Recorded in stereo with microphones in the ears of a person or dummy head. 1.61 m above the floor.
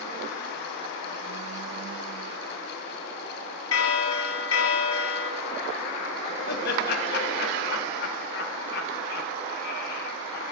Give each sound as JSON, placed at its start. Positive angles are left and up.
{"t": 3.7, "sound": "a bell", "side_deg": 80, "distance_m": 1.0}
{"t": 6.5, "sound": "laughter", "side_deg": 65, "distance_m": 1.9}